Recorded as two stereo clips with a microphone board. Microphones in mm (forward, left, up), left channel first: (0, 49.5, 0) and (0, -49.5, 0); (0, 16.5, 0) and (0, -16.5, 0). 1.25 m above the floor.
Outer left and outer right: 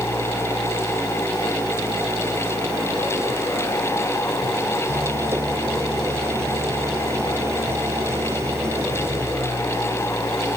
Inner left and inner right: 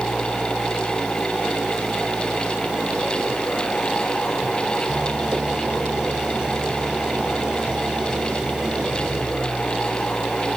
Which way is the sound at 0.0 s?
25° right (ahead or behind).